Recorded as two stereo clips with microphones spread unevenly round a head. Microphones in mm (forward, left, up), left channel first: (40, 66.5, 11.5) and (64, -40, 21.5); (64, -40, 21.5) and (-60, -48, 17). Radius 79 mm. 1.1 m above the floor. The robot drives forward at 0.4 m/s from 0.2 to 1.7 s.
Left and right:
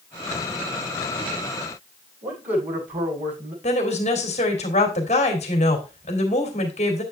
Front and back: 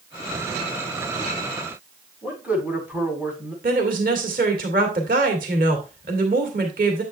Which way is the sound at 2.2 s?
95° right.